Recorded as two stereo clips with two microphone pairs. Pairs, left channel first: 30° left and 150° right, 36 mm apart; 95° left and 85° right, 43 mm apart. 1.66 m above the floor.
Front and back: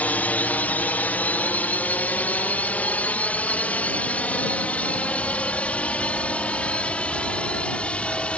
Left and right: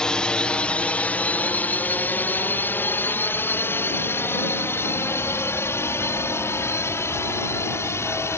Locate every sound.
0.0 s a drone: 30° left; by 8.4 s 85° left